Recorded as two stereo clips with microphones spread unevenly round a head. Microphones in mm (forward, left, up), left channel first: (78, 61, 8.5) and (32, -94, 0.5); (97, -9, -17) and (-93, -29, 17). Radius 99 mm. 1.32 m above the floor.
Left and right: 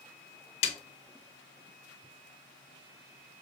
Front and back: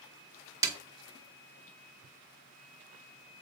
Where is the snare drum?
120° left, 0.8 m.